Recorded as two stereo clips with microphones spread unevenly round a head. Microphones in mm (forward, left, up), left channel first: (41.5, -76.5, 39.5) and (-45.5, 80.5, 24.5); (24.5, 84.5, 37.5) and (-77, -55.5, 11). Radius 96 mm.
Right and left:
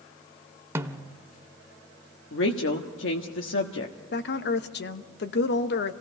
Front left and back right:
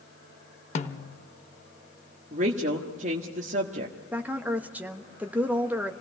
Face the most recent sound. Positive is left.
turn(degrees=-50)